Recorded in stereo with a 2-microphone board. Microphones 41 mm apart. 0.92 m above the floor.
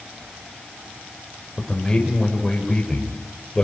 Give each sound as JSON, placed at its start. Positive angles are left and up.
{"t": 1.6, "sound": "a man speaking", "side_deg": 15, "distance_m": 4.0}